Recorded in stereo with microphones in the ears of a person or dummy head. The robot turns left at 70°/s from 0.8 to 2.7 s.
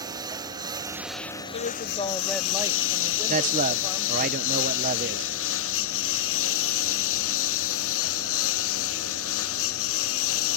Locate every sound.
0.0 s a lawn mower: 20° right (ahead or behind); by 10.6 s 85° left
1.5 s a woman speaking: 60° left; by 4.3 s 20° right
3.3 s a man speaking: 45° right (ahead or behind)